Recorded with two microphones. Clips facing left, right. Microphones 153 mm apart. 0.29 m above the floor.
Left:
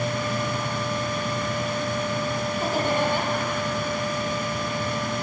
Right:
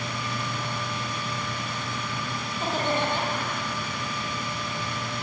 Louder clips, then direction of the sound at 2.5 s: Left 1 dB; 10° left (ahead or behind).